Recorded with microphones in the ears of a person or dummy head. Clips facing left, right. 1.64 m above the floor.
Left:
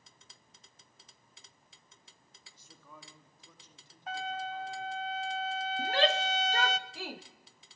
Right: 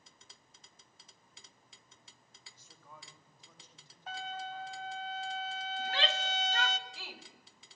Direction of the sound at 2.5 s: 80° left.